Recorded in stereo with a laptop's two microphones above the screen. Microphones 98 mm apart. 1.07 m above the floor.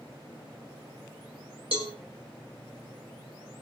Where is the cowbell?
70° right (ahead or behind), 2 m.